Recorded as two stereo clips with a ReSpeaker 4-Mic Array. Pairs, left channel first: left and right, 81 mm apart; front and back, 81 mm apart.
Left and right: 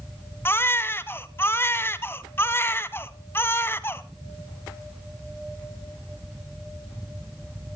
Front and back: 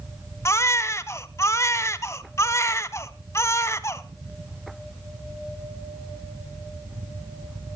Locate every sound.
0.5 s a baby crying: 40° left, 0.8 m